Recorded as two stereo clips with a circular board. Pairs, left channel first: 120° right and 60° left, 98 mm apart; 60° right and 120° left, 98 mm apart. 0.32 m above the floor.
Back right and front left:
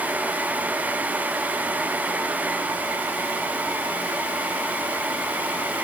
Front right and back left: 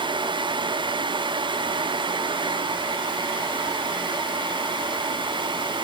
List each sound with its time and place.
Only background noise.